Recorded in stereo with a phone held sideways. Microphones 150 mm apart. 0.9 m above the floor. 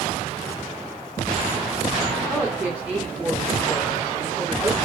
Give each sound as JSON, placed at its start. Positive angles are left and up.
{"t": 2.3, "sound": "a woman speaking", "side_deg": -15, "distance_m": 2.5}